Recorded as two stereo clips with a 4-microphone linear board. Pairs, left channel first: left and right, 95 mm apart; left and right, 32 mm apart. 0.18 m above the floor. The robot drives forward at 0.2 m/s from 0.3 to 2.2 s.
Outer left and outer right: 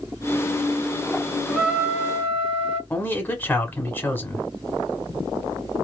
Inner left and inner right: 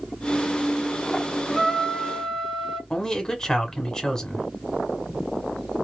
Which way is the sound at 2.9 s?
20° left (ahead or behind).